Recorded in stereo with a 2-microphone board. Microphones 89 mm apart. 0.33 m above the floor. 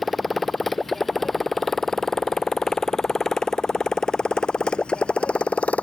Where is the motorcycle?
Centre (ahead or behind); by 5.8 s 15° left (ahead or behind).